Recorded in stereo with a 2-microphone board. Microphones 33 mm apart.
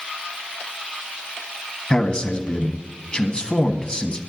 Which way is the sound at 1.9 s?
30° left (ahead or behind).